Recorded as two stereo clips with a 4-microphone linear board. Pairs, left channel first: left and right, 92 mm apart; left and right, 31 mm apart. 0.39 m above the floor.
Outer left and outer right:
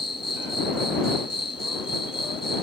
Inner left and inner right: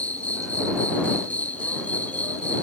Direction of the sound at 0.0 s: 75° left (ahead or behind).